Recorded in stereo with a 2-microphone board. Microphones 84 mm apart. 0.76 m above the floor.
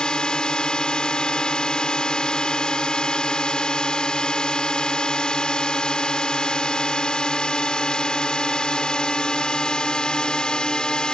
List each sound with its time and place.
0.0 s a drone: 10° left (ahead or behind)